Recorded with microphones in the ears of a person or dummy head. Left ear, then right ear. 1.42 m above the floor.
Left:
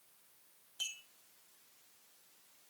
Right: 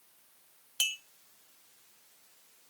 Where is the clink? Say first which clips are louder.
Right 10 dB; 40° right (ahead or behind), 0.6 m.